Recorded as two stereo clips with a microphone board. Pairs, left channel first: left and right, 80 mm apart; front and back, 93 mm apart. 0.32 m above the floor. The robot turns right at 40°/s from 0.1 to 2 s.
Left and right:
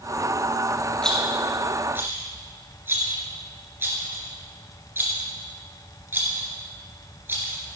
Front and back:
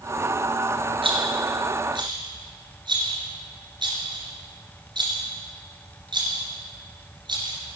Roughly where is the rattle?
Behind.